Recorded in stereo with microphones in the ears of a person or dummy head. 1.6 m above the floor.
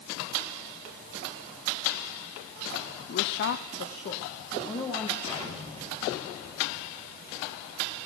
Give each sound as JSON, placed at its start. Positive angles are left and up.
{"t": 3.1, "sound": "a woman speaking", "side_deg": 50, "distance_m": 1.0}
{"t": 5.2, "sound": "an explosion", "side_deg": 35, "distance_m": 7.0}